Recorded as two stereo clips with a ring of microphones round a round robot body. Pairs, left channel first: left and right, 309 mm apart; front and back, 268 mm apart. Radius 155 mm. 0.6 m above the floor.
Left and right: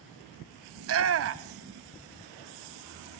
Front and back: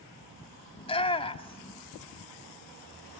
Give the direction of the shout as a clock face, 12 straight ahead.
2 o'clock.